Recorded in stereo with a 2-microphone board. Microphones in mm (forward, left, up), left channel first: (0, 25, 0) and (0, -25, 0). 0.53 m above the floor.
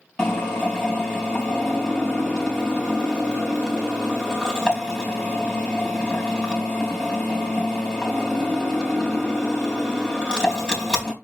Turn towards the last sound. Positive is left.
turn(degrees=15)  # may be behind; listen again after turning